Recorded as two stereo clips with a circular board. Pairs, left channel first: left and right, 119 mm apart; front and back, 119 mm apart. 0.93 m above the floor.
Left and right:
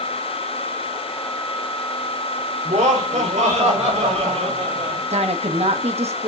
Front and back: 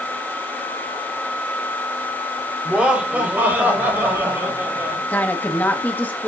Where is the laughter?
95° right, 2 m; by 5.0 s 110° right, 5.5 m.